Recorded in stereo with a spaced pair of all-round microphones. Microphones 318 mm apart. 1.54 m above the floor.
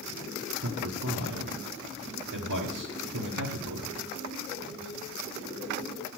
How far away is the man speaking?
About 1.1 m.